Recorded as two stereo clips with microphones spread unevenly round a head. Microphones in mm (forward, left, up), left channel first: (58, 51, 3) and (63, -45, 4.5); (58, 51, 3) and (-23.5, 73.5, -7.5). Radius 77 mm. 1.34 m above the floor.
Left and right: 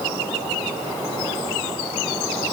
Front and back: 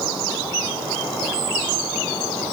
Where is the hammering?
I don't hear hammering.